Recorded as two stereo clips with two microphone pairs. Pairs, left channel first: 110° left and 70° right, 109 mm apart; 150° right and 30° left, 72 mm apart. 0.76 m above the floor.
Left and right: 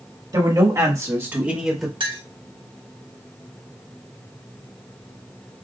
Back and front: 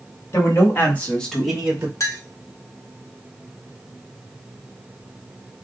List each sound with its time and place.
0.3 s a man speaking: 115° right, 1.7 m; by 1.9 s 25° left, 1.1 m
2.0 s a clink: 110° right, 1.0 m